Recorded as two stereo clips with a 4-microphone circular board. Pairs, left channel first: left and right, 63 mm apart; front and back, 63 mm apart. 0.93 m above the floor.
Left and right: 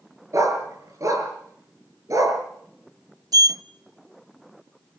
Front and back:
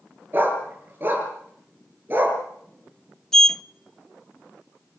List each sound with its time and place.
0.3 s a dog barking: 125° right, 5.5 m
3.3 s a sliding door: 80° right, 0.5 m